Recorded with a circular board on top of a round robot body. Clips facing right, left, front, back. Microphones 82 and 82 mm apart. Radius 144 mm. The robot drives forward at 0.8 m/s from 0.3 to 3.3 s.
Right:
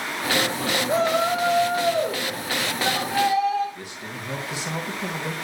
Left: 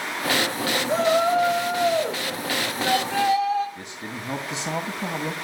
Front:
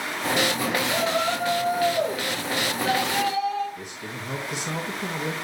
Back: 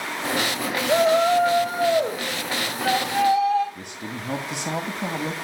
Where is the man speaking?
155° left, 2.5 m.